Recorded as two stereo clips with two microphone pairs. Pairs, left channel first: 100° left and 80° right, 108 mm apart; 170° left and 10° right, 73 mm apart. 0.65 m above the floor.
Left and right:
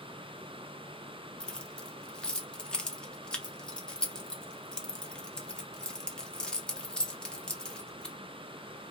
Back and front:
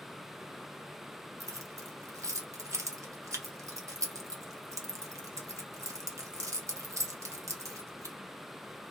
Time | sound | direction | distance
1.4 | keys jangling | 25° left | 0.5 m